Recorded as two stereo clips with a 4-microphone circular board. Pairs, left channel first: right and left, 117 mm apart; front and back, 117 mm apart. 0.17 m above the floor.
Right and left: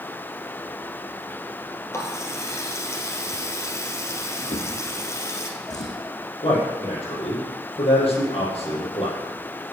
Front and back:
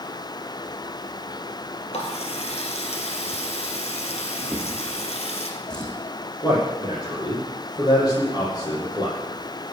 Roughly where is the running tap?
Ahead right.